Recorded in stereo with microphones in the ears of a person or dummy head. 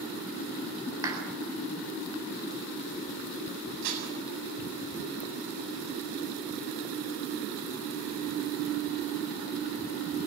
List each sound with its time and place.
1.0 s a clap: 20° right (ahead or behind), 8 m
3.8 s dishes clattering: 75° right (ahead or behind), 7.5 m